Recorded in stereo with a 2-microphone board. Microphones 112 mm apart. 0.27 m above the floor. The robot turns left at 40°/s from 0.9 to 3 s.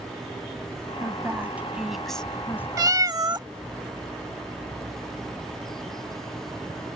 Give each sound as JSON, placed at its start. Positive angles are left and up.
{"t": 1.0, "sound": "a woman speaking", "azimuth_deg": -140}
{"t": 2.8, "sound": "a cat meowing", "side_deg": -35}